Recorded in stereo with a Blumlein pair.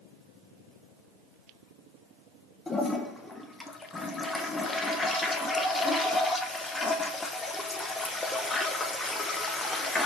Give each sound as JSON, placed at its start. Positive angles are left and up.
{"t": 2.7, "sound": "a toilet flushing", "azimuth_deg": 15, "distance_m": 0.6}